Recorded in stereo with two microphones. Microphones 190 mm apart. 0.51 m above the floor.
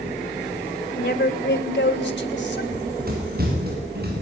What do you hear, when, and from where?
1.0 s a woman speaking: 60° left (ahead or behind), 2 m; by 2.6 s 70° left (ahead or behind), 3.5 m
2.7 s running footsteps: 50° right (ahead or behind), 8 m; by 4.2 s 55° right (ahead or behind), 9 m